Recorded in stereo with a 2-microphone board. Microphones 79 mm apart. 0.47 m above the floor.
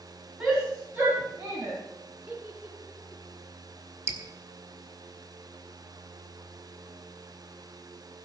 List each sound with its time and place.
0.4 s a shout: 10° right (ahead or behind), 3.5 m; by 1.8 s 30° right (ahead or behind), 4 m
2.3 s a giggle: 15° right (ahead or behind), 7 m
4.1 s dripping: 35° right (ahead or behind), 1.9 m